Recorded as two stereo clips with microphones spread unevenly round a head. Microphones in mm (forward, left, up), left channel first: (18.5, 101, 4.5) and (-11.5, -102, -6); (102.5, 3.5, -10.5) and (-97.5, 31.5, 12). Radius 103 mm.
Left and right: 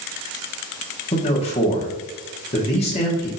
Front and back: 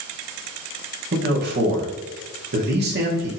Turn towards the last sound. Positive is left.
turn(degrees=140)